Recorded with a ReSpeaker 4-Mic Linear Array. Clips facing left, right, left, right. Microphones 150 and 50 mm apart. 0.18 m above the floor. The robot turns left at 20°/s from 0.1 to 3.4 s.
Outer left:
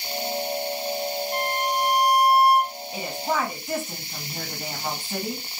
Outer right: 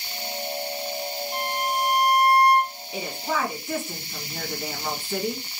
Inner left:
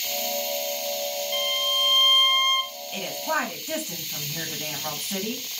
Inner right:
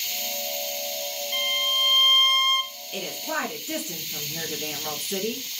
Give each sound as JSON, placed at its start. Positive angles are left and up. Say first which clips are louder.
{"t": 1.3, "sound": "a violin", "louder": "outer right 1 dB, inner right 2 dB", "side_deg": -5, "distance_m": 0.7}
{"t": 2.9, "sound": "a woman speaking", "louder": "outer left 1 dB, inner left 3 dB", "side_deg": 20, "distance_m": 1.5}